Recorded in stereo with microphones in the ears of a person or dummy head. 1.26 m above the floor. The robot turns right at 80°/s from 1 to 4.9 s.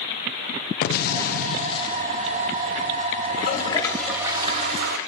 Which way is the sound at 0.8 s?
85° left.